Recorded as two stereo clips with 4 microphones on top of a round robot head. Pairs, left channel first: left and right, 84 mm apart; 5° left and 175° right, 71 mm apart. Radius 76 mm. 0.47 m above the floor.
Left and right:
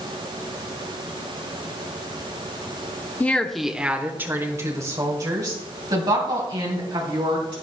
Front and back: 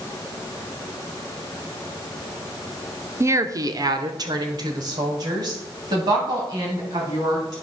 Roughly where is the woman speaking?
Behind left.